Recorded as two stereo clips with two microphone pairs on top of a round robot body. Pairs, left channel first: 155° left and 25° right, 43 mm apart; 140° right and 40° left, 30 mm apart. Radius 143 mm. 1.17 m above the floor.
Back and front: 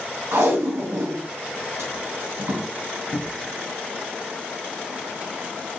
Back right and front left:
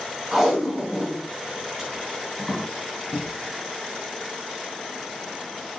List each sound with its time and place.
0.3 s tape being pulled: 45° right, 3.5 m
3.1 s a cupboard door: 160° left, 1.1 m